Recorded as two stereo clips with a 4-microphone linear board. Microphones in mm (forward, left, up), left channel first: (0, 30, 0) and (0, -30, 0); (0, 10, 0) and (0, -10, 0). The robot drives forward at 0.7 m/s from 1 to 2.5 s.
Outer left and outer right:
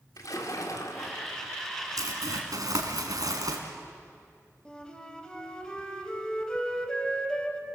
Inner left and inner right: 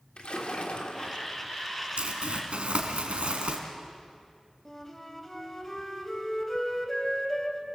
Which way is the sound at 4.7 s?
15° left (ahead or behind).